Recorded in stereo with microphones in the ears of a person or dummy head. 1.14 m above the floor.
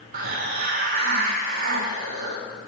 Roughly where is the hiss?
Right.